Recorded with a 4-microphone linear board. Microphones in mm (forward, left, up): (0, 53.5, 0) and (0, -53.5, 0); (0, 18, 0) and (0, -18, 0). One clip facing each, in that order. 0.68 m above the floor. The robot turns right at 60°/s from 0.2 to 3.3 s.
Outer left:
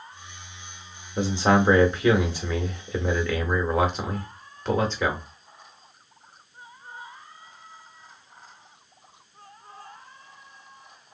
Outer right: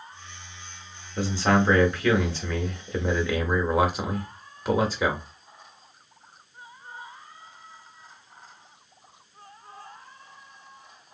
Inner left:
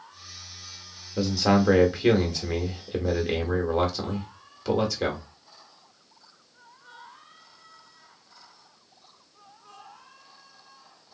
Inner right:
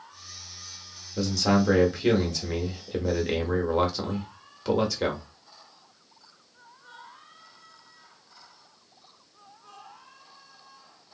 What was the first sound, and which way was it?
A man speaking, 20° left (ahead or behind).